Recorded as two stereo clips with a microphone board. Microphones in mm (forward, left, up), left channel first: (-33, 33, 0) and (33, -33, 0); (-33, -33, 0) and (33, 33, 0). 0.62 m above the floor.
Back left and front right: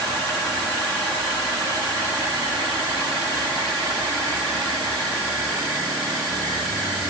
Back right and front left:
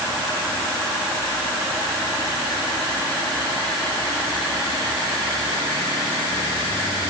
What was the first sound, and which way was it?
Only background noise.